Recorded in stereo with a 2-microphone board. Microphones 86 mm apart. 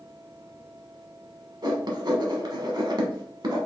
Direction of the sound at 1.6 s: 55° right (ahead or behind).